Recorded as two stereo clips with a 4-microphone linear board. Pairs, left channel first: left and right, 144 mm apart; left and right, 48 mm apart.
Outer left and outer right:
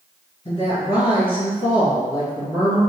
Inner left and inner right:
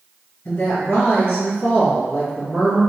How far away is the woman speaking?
About 1.9 m.